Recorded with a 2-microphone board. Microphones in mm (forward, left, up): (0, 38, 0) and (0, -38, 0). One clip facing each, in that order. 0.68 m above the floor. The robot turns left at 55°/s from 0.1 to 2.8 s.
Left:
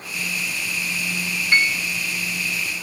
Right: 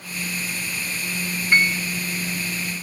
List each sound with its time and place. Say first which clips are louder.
1.5 s a piano: right 1 dB; 15° right (ahead or behind), 1.3 m; by 1.8 s 5° right (ahead or behind), 1.3 m